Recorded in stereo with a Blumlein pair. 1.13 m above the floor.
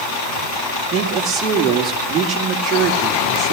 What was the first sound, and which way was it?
A woman speaking, 20° right.